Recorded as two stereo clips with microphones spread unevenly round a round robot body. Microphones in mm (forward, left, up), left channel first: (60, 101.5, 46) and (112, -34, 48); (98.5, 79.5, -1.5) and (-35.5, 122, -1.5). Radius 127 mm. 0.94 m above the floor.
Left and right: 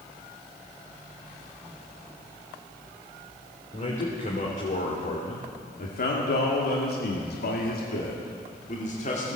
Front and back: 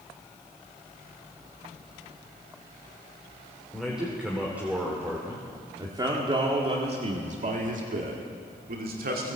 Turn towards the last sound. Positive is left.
turn(degrees=165)